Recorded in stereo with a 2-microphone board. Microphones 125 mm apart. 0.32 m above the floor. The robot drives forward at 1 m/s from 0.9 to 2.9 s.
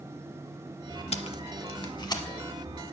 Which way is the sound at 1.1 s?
60° left (ahead or behind).